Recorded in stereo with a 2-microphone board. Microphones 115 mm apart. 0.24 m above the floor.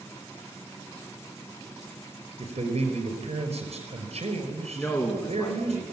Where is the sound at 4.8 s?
20° left (ahead or behind), 3 m.